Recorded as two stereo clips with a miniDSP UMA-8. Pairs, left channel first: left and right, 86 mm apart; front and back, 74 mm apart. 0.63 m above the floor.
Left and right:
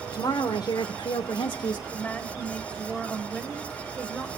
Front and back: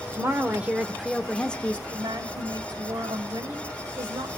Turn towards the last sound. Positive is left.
turn(degrees=165)